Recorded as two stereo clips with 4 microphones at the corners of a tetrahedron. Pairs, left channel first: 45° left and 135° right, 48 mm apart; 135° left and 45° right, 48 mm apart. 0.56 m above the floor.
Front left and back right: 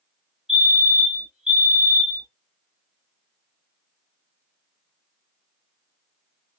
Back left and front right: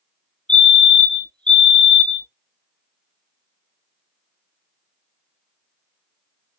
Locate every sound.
0.5 s a fire alarm: straight behind, 1.6 m